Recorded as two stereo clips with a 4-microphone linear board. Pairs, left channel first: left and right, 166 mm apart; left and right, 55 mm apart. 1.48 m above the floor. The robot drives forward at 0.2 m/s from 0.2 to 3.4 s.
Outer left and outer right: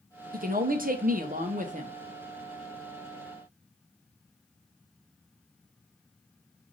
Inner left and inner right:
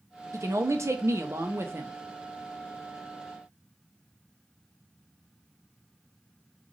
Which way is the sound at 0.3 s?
60° right (ahead or behind).